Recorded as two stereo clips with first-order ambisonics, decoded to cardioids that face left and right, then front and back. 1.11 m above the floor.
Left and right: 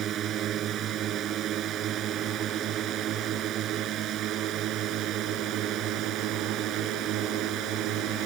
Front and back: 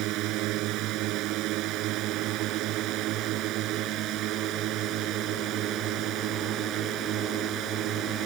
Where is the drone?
145° right; by 8.3 s 130° right.